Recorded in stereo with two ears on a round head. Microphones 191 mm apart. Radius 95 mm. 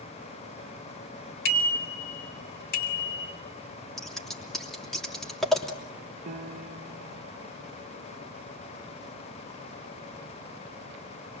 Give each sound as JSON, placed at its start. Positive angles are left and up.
{"t": 1.4, "sound": "a bicycle bell", "side_deg": 45, "distance_m": 3.0}
{"t": 4.0, "sound": "scissors", "side_deg": 0, "distance_m": 3.0}
{"t": 6.3, "sound": "a piano", "side_deg": -35, "distance_m": 0.5}